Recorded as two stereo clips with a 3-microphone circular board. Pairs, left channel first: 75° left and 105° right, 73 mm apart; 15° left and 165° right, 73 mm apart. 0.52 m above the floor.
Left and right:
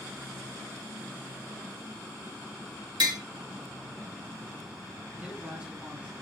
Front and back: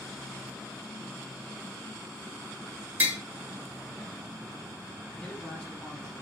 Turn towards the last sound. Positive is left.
turn(degrees=-60)